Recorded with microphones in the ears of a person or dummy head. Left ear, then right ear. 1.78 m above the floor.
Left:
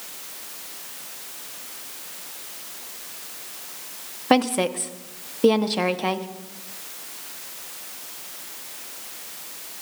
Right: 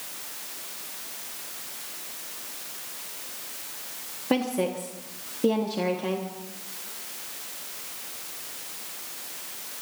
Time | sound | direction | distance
4.3 | a woman speaking | 45° left (ahead or behind) | 1.3 m